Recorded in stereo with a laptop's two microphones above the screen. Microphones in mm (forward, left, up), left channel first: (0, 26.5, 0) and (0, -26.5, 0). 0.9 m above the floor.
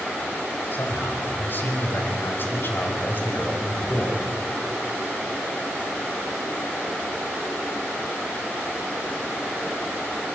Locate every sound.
0.7 s a man speaking: 40° left (ahead or behind), 5 m